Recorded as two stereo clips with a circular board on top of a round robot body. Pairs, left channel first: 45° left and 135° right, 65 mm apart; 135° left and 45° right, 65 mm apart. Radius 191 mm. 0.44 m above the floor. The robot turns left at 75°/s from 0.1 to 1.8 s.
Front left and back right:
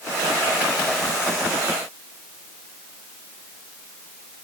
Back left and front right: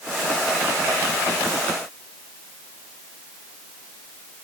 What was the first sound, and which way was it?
Only background noise.